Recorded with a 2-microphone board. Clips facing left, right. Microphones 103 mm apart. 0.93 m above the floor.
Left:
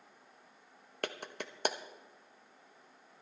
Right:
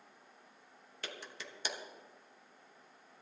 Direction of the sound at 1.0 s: 55° left (ahead or behind).